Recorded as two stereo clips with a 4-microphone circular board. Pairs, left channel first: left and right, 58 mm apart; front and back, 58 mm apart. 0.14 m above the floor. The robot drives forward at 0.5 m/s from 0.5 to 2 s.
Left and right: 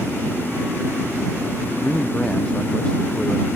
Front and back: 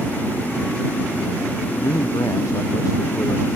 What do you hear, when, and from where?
1.7 s a man speaking: 15° left